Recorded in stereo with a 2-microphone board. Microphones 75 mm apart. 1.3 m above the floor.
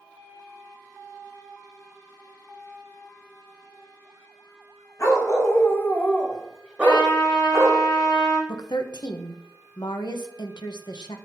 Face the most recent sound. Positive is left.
turn(degrees=70)  # may be behind; listen again after turning